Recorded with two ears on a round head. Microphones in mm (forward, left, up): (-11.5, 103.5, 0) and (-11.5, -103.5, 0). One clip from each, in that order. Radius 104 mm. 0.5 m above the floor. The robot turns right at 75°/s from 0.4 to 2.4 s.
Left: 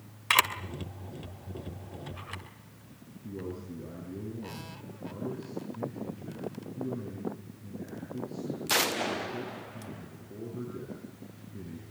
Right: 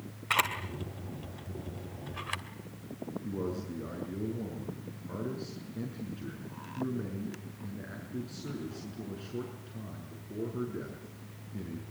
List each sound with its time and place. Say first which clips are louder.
0.3 s a camera shutter: left 4 dB; 60° left (ahead or behind), 2.5 m; by 2.4 s 35° right (ahead or behind), 2.5 m
3.2 s a man speaking: right 2 dB; 55° right (ahead or behind), 6 m